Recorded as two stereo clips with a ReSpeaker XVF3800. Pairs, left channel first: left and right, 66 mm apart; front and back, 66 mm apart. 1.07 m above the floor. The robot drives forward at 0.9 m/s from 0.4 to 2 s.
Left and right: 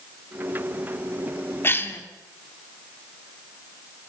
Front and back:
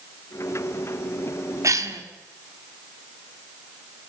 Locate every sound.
1.6 s a cough: 140° left, 2 m; by 2.0 s 145° left, 2.5 m